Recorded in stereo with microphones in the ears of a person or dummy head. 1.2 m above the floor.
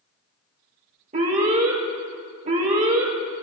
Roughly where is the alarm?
Right.